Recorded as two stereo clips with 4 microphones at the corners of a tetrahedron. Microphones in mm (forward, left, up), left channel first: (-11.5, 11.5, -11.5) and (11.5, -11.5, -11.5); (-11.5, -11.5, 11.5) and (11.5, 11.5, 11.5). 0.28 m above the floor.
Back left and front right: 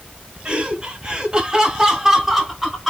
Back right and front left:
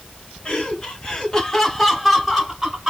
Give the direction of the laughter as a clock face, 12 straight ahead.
3 o'clock.